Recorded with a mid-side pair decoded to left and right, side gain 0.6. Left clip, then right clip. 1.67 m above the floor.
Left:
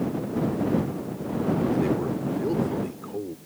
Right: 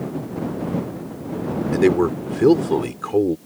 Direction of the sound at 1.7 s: 60° right.